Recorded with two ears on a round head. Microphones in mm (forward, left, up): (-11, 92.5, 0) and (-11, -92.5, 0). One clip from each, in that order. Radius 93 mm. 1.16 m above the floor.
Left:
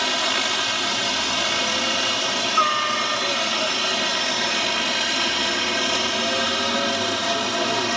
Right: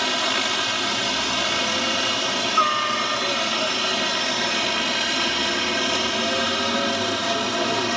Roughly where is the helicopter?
Centre.